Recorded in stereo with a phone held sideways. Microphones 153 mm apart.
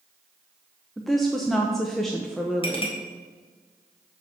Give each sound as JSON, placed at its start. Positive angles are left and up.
{"t": 1.0, "sound": "a woman speaking", "side_deg": 0, "distance_m": 0.8}
{"t": 2.6, "sound": "a clink", "side_deg": 35, "distance_m": 1.9}